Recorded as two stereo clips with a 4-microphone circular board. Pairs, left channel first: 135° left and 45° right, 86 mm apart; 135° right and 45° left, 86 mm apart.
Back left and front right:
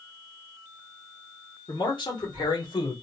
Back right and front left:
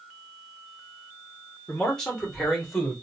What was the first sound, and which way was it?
A man speaking, 145° left.